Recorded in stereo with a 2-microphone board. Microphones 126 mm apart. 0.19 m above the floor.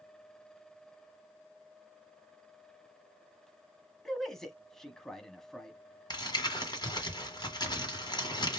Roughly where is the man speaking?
Centre.